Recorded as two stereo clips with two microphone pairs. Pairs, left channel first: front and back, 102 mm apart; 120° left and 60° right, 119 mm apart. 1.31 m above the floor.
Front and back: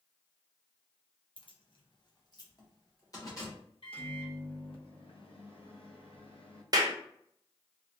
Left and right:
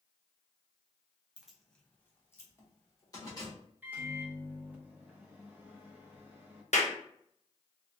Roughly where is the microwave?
Ahead.